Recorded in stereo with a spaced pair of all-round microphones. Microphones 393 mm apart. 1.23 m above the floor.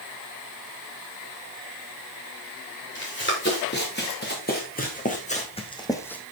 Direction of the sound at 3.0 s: 30° left (ahead or behind).